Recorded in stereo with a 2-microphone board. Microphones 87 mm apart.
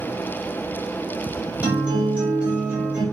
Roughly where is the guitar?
Centre.